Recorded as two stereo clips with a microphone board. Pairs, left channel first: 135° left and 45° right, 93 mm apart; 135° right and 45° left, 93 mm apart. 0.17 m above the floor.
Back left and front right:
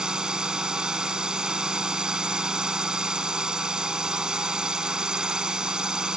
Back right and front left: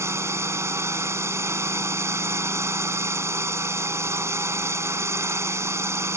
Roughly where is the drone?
Ahead left.